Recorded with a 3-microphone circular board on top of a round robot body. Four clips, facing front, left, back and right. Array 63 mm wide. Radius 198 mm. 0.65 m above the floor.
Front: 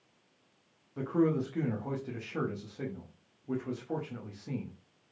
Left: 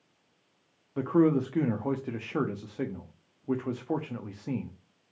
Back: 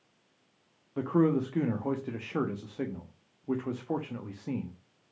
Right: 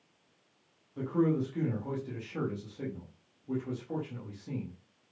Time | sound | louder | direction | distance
1.0 | a man speaking | left 5 dB, back 3 dB | 120° left | 1.2 m